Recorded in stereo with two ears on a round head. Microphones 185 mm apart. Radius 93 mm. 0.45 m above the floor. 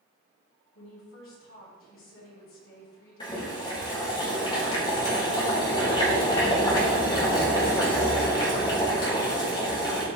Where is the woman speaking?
70° left (ahead or behind), 4.5 m.